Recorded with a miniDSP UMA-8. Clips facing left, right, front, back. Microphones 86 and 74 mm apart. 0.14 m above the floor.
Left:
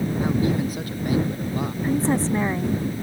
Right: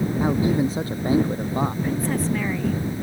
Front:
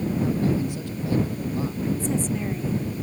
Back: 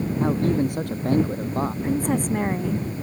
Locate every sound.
0.2 s a man speaking: 155° right; by 1.7 s 140° right
1.8 s a woman speaking: 150° left